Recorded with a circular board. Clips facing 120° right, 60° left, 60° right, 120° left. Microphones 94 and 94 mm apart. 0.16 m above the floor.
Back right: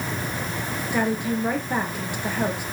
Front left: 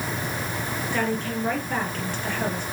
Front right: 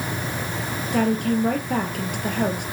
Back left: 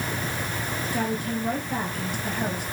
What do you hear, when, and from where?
0.9 s a woman speaking: 40° right, 3 m